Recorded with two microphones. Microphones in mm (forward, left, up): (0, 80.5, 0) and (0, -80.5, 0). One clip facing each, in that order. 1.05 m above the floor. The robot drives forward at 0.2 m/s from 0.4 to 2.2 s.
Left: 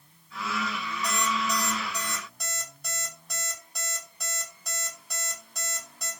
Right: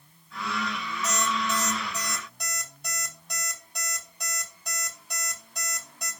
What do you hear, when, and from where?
1.0 s an alarm clock: centre (ahead or behind), 2 m